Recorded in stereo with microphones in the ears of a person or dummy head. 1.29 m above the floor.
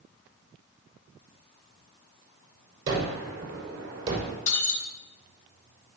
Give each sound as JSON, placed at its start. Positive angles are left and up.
{"t": 2.9, "sound": "a gunshot", "side_deg": -30, "distance_m": 5.5}
{"t": 4.5, "sound": "breaking glass", "side_deg": 45, "distance_m": 5.0}